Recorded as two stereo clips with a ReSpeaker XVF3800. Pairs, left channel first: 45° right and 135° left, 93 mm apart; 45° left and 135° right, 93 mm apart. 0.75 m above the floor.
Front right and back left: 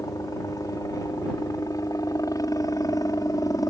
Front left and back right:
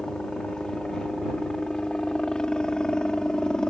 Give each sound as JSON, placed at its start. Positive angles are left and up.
{"t": 0.0, "sound": "a helicopter", "azimuth_deg": -35}